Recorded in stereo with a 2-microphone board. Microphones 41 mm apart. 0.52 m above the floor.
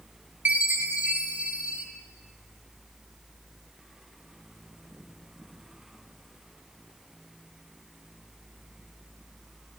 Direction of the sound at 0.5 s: 50° right (ahead or behind).